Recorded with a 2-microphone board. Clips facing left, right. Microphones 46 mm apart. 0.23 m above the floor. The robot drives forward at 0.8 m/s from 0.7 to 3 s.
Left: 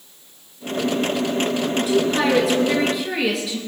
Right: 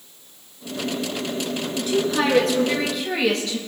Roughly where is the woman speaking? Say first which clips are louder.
Left 1 dB; centre.